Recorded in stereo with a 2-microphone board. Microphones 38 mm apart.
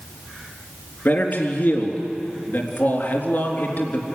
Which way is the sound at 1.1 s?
60° left (ahead or behind).